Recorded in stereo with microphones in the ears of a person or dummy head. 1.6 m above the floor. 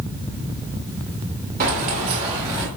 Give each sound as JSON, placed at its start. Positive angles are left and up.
{"t": 1.6, "sound": "keys jangling", "side_deg": -45, "distance_m": 1.8}